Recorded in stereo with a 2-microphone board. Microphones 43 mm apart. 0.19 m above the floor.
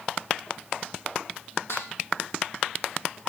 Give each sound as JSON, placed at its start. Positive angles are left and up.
{"t": 1.7, "sound": "dishes clattering", "side_deg": 80, "distance_m": 5.0}